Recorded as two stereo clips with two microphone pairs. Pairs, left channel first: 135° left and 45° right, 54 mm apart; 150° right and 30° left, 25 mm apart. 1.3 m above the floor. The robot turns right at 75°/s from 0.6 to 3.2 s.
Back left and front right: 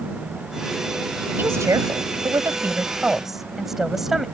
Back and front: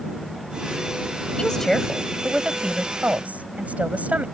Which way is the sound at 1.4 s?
95° right.